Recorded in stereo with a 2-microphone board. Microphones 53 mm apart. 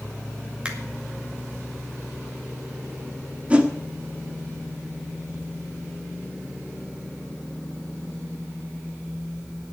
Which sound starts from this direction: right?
A whoosh, at 3.5 s.